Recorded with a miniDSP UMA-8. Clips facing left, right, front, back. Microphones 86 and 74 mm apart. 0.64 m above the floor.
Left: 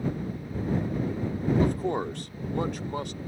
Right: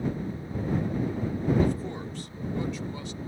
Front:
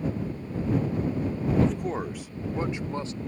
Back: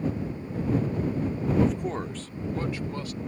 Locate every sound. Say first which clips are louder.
1.6 s a man speaking: left 3 dB, even; 95° left; by 3.2 s 60° left